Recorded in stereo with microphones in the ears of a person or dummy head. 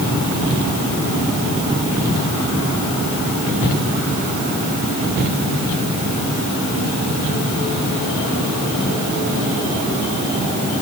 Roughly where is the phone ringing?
No phone ringing in this recording.